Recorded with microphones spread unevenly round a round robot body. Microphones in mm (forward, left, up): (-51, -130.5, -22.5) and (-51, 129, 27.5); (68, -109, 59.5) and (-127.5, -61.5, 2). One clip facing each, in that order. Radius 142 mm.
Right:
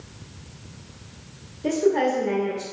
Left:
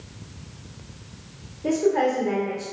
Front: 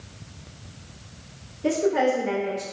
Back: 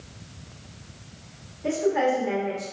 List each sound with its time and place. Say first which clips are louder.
1.6 s a woman speaking: even, front 2 dB; 50° right, 0.9 m